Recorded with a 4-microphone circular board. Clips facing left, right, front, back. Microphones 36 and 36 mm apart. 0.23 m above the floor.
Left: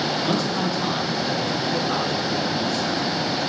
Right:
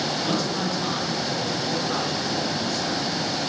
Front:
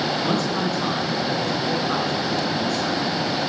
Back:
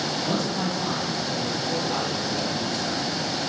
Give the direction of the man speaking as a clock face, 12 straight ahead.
12 o'clock.